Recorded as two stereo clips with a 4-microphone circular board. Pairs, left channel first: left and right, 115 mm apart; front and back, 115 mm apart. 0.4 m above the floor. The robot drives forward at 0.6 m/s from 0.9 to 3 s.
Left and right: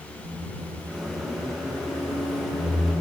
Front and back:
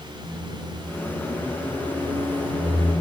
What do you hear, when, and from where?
0.2 s a microwave: 140° right, 1.3 m; by 2.9 s 160° right, 2 m